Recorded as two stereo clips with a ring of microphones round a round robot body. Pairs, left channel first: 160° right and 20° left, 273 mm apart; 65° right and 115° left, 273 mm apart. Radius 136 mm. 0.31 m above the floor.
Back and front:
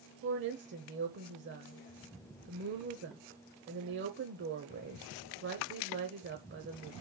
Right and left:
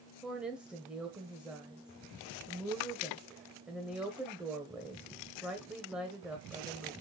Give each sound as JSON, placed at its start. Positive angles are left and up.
{"t": 0.2, "sound": "a woman speaking", "azimuth_deg": 30, "distance_m": 1.1}